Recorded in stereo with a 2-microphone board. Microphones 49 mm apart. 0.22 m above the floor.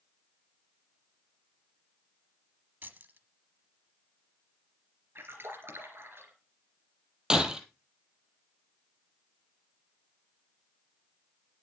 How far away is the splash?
About 3 m.